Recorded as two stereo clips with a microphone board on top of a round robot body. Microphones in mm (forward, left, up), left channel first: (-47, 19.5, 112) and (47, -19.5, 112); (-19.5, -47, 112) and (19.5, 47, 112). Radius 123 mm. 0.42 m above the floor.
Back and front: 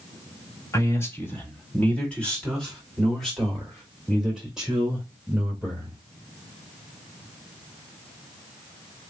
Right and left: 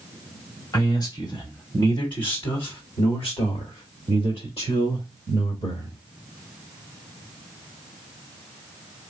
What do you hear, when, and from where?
0.7 s a man speaking: 150° right, 1.9 m; by 6.0 s 105° right, 4.5 m